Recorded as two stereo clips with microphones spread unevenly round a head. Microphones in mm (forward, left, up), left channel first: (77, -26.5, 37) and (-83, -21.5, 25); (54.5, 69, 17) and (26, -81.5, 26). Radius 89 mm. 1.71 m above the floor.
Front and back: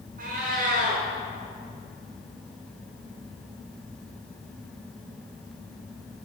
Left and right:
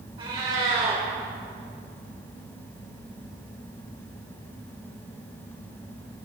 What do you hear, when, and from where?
0.2 s a cat meowing: 155° right, 1.9 m